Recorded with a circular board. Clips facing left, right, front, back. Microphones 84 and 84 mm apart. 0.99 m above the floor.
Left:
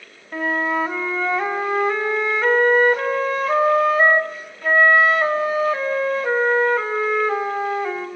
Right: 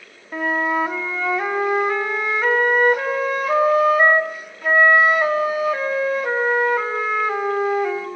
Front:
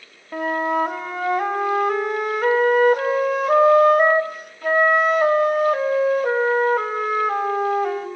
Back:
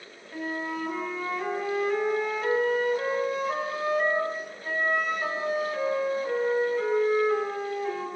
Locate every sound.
0.3 s a flute: 15° right, 2.5 m